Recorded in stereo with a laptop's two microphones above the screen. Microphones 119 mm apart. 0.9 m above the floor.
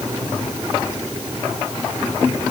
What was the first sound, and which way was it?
Only background noise.